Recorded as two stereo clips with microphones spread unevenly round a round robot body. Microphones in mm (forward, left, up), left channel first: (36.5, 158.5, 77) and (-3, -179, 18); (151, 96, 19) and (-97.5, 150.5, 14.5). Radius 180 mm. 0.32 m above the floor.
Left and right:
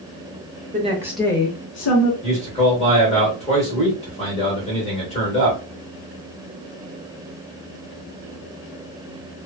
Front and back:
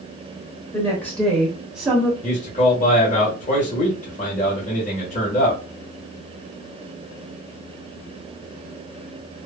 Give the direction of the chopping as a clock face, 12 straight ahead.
No chopping in this recording.